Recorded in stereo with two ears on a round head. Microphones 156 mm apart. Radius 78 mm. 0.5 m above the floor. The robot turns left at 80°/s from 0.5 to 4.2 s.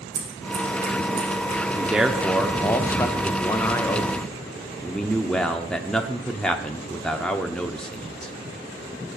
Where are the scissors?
85° right, 5 m; by 1.6 s 5° left (ahead or behind), 5 m.